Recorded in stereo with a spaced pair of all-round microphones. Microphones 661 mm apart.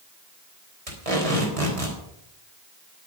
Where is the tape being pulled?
55° right (ahead or behind), 4 m.